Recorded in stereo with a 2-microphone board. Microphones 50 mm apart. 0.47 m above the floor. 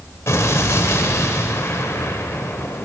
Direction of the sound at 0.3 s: 65° left (ahead or behind).